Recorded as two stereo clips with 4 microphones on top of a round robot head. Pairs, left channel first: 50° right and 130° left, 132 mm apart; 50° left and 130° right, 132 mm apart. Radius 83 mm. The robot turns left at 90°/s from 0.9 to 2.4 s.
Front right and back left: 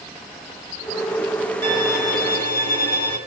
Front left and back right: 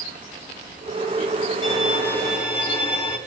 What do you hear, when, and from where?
1.6 s a violin: 20° left, 2.5 m; by 3.2 s 50° right, 2.5 m